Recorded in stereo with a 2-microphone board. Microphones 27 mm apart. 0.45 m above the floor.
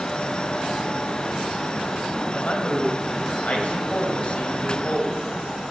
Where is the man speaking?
55° left (ahead or behind), 3 m.